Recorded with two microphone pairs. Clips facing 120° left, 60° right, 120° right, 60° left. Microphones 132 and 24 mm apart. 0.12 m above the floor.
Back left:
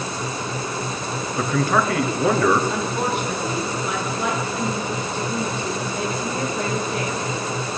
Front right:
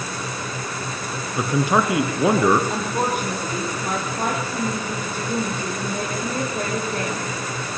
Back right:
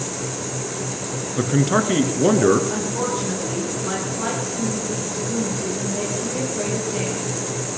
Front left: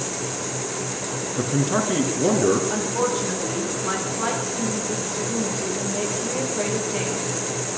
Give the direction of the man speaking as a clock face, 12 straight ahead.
4 o'clock.